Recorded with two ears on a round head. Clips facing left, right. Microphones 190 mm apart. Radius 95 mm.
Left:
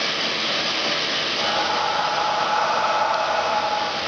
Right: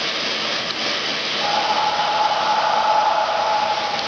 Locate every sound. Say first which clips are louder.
1.4 s breathing: right 4 dB; 35° left (ahead or behind), 1.1 m